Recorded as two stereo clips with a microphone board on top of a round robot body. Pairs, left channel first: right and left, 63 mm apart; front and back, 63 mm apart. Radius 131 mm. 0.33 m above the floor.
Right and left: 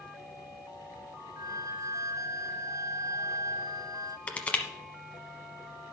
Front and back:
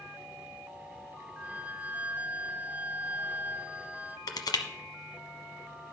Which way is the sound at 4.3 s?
20° right.